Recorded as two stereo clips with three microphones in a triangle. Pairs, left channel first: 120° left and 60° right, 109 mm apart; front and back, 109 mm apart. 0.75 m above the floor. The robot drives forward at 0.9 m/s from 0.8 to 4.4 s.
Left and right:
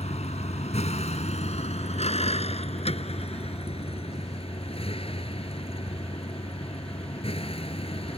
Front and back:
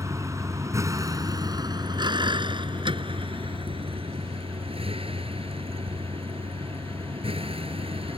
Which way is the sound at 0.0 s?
120° left.